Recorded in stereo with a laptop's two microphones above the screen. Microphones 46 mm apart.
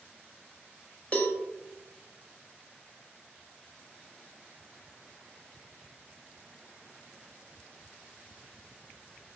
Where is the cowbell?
35° left (ahead or behind), 0.7 m.